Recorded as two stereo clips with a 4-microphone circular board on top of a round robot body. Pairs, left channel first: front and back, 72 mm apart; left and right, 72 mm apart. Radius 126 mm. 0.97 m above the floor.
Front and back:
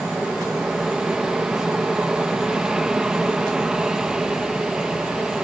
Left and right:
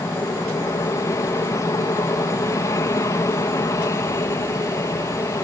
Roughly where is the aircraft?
Left.